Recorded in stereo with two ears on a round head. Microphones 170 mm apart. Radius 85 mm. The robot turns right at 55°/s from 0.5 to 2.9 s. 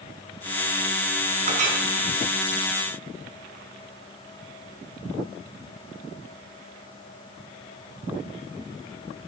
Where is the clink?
35° right (ahead or behind), 3.5 m; by 1.8 s 50° right (ahead or behind), 3.5 m.